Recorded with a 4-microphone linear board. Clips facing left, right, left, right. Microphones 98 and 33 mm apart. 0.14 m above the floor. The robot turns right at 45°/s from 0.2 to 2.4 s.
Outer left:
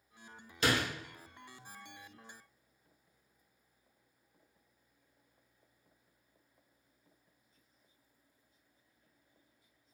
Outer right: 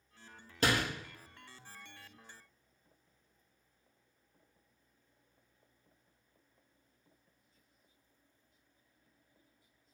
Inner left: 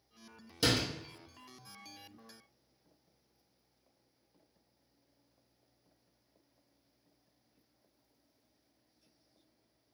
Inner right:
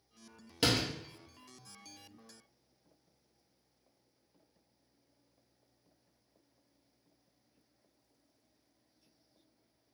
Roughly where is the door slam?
Right.